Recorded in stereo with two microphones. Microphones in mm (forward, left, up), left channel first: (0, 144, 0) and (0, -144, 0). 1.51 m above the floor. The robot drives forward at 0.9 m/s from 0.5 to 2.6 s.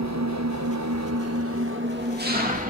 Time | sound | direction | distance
0.0 | an engine running | 65° right (ahead or behind) | 1.0 m